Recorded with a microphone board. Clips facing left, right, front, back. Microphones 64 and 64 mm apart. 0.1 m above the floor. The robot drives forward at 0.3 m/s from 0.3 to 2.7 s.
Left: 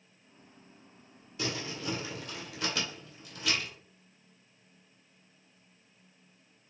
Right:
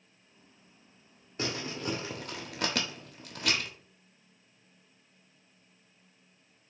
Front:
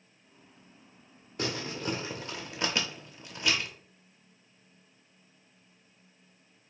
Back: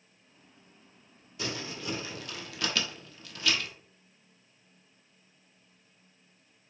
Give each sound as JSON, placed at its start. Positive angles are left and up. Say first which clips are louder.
{"t": 1.4, "sound": "crumpling", "louder": "right 1 dB, front 3 dB", "azimuth_deg": -40, "distance_m": 0.8}